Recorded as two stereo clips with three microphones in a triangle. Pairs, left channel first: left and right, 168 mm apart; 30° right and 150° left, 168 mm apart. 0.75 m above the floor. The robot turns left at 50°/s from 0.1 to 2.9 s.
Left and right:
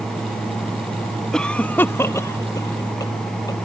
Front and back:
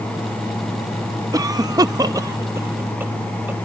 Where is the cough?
170° left; by 3.6 s 90° left.